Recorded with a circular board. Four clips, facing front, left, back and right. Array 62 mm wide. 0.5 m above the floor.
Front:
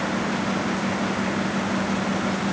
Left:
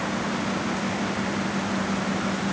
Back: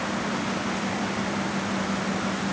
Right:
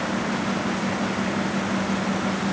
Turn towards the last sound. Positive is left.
No sound to turn to.